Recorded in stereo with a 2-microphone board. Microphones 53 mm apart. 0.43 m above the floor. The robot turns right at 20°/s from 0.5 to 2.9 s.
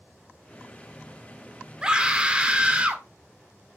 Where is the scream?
15° right (ahead or behind), 1.4 m; by 3.0 s 25° right (ahead or behind), 1.4 m.